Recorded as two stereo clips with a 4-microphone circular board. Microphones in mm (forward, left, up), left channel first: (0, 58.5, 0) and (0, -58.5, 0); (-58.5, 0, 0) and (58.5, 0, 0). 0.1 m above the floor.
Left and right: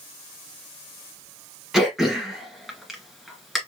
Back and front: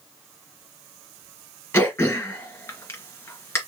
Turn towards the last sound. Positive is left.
turn(degrees=-170)